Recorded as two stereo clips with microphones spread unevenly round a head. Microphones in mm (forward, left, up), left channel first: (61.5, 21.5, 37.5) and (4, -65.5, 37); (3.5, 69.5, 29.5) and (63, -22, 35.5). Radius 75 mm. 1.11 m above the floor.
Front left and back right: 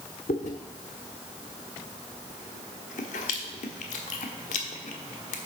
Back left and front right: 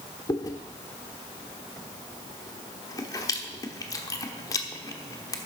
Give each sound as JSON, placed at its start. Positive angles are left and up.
{"t": 0.3, "sound": "chewing", "azimuth_deg": 65, "distance_m": 1.2}